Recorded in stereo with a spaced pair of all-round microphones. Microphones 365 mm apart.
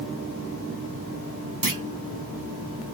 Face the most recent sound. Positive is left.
turn(degrees=-60)  # may be behind; listen again after turning